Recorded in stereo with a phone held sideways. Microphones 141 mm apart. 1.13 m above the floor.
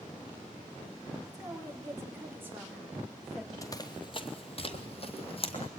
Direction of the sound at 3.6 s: 25° left (ahead or behind).